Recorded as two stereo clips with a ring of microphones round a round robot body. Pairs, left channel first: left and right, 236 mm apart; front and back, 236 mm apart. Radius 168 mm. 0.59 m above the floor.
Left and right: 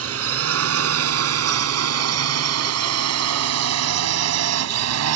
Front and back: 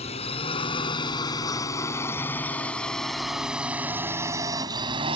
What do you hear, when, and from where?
0.0 s a drone: 70° right; by 5.2 s 105° right